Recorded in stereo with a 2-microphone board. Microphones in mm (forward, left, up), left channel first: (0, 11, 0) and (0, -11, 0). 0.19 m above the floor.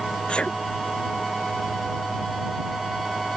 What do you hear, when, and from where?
0.3 s a sneeze: 60° left (ahead or behind)